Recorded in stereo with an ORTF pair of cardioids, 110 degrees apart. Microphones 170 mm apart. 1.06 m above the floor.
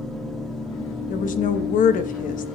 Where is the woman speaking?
50° left, 0.9 m.